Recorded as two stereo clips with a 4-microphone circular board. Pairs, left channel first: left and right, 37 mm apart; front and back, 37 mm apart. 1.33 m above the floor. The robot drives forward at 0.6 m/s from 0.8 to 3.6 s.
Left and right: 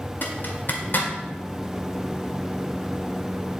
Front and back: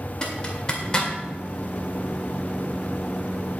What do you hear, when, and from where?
0.2 s a zipper: 65° left, 2 m; by 1.1 s 70° left, 2 m